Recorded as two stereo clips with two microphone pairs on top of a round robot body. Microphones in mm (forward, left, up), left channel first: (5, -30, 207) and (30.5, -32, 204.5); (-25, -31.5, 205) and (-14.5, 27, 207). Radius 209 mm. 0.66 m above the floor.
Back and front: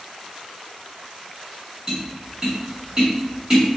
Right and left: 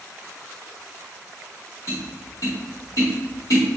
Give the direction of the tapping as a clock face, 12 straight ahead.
2 o'clock.